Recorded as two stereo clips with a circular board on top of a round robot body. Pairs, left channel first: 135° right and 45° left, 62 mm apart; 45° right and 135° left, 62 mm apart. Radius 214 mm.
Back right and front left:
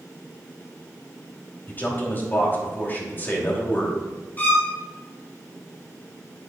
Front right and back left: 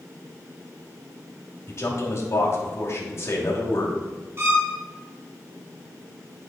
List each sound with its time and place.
1.7 s a man speaking: 80° right, 2.5 m
4.4 s a violin: 170° left, 2.5 m